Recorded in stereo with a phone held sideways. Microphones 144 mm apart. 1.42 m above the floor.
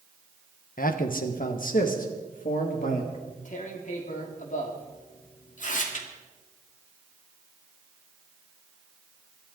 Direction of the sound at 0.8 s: 75° left (ahead or behind).